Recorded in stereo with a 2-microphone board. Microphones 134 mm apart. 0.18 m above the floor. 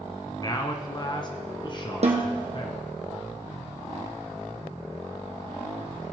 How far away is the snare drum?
About 2.0 m.